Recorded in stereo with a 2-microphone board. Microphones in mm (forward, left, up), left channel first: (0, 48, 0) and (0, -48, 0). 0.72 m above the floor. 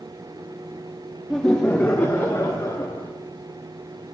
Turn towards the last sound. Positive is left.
turn(degrees=35)  # may be behind; listen again after turning